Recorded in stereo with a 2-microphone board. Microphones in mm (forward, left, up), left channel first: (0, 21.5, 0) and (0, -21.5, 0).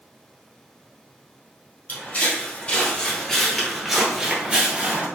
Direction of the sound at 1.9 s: 40° left (ahead or behind).